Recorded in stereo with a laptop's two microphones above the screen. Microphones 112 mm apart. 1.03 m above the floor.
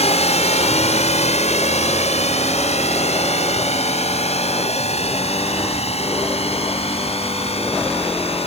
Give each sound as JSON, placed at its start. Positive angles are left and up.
{"t": 0.0, "sound": "a drone", "side_deg": 70}